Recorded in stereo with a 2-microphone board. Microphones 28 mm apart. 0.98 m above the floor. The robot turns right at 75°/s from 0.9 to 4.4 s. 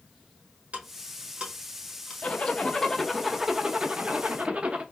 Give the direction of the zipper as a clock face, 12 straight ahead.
9 o'clock.